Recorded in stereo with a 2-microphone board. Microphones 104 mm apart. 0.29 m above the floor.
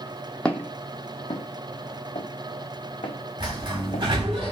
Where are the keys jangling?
I don't hear keys jangling.